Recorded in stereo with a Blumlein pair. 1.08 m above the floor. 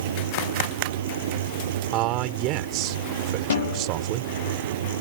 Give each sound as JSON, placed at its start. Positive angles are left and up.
{"t": 0.0, "sound": "a fan", "azimuth_deg": -60}
{"t": 1.9, "sound": "a man speaking", "azimuth_deg": -40}
{"t": 3.5, "sound": "a snare drum", "azimuth_deg": 65}